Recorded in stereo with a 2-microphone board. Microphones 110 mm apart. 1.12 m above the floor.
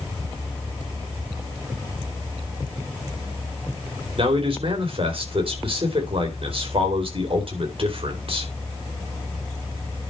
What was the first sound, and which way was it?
A man speaking, 60° right (ahead or behind).